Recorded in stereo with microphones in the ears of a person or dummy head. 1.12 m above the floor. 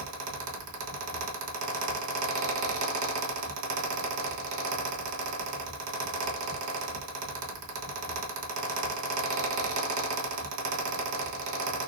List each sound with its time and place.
0.0 s a fan: 80° right, 1.4 m